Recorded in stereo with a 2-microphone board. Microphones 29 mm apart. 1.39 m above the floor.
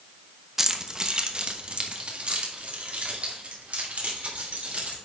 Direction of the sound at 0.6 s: 10° right (ahead or behind).